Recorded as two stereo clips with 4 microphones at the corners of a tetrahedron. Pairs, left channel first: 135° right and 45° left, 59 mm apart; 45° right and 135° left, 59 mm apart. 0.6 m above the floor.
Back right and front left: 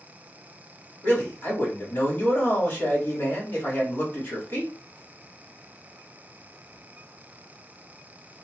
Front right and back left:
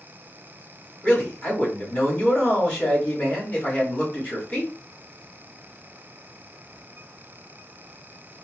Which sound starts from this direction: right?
A man speaking, at 1.0 s.